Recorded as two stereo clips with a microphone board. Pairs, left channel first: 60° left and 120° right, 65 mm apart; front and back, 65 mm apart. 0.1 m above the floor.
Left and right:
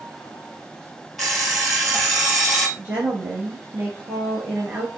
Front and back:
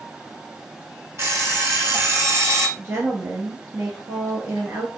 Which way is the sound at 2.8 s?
170° right.